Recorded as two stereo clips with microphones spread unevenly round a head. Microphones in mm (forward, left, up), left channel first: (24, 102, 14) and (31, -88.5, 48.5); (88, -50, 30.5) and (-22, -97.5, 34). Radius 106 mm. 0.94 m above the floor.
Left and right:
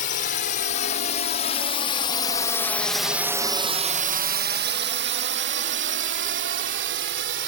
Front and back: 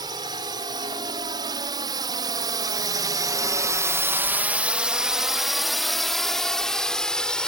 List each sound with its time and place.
0.0 s a drone: 135° left; by 7.5 s 60° right